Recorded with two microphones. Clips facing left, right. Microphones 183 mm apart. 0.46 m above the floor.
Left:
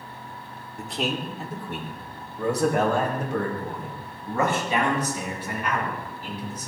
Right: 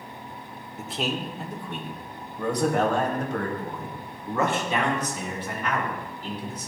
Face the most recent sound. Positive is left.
turn(degrees=10)  # may be behind; listen again after turning